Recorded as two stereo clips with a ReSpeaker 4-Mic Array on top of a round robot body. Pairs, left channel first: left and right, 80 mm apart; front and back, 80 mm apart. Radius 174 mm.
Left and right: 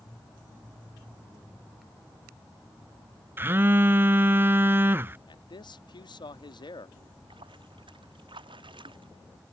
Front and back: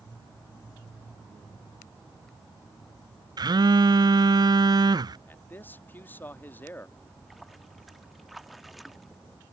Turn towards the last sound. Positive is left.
turn(degrees=-90)